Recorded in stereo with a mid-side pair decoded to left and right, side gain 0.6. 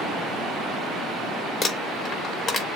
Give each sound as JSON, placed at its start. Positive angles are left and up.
{"t": 1.6, "sound": "crumpling", "azimuth_deg": 35, "distance_m": 2.5}